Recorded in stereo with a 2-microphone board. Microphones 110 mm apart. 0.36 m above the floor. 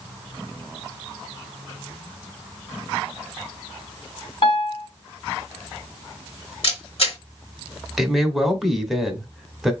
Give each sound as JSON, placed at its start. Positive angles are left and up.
{"t": 4.4, "sound": "a piano", "side_deg": 55, "distance_m": 1.6}
{"t": 6.6, "sound": "a camera shutter", "side_deg": 65, "distance_m": 1.9}
{"t": 8.0, "sound": "a man speaking", "side_deg": 0, "distance_m": 0.9}